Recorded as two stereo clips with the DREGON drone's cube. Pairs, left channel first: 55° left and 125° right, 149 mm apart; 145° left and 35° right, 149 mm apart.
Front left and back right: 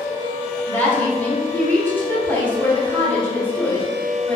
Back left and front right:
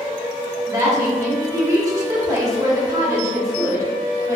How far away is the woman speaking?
About 0.7 m.